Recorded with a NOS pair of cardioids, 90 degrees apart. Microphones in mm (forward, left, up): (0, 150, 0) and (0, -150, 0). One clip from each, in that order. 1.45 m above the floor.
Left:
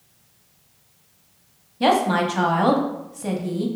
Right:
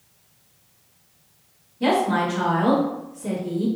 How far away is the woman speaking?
About 1.0 m.